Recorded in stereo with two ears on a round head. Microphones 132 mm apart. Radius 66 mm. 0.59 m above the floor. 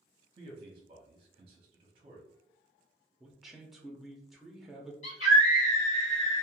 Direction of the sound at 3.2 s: Centre (ahead or behind).